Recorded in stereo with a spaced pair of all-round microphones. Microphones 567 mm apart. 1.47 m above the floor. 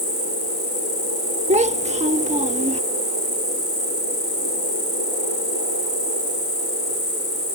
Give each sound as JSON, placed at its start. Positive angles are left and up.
{"t": 0.0, "sound": "an insect", "side_deg": 80}
{"t": 1.5, "sound": "a child speaking", "side_deg": -10}